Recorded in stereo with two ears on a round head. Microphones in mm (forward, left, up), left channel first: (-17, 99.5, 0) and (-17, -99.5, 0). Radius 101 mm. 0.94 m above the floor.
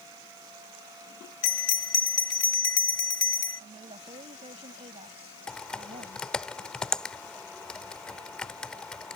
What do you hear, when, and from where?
1.4 s a bell: 80° left
3.6 s a woman speaking: 25° right (ahead or behind)
5.5 s typing on a keyboard: 5° left (ahead or behind)